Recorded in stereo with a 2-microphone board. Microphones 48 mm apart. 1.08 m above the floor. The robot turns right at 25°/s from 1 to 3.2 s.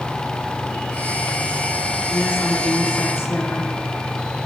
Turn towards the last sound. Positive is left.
turn(degrees=70)  # may be behind; listen again after turning